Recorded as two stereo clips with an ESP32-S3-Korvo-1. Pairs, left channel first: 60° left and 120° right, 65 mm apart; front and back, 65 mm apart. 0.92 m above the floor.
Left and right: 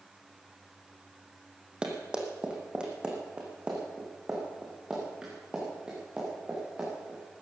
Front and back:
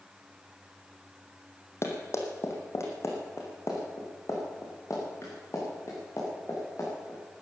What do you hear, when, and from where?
1.8 s running footsteps: 45° right, 2.5 m